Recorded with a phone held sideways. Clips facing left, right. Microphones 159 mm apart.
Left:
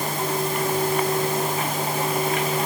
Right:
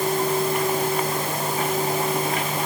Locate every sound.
Only background noise.